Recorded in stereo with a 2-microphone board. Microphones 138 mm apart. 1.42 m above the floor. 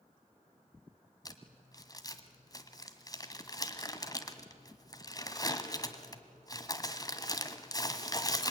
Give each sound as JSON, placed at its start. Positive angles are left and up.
{"t": 1.2, "sound": "crumpling", "side_deg": 25, "distance_m": 1.5}